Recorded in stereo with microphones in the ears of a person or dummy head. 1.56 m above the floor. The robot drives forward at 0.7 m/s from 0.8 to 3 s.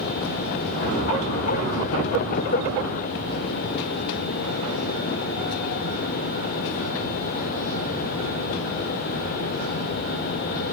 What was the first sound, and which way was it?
Only background noise.